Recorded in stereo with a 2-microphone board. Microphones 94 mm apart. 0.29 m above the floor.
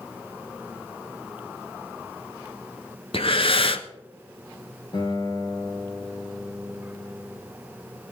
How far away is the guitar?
About 3.5 m.